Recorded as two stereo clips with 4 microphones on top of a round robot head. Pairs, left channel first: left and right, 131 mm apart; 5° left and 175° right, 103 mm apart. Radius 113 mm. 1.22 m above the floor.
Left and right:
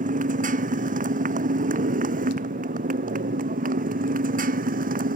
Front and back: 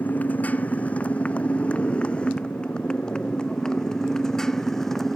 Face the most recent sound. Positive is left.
turn(degrees=-80)